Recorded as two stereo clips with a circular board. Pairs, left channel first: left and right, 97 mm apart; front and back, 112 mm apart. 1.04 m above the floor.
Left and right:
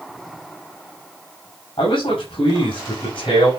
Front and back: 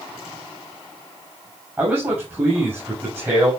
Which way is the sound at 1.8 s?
110° left.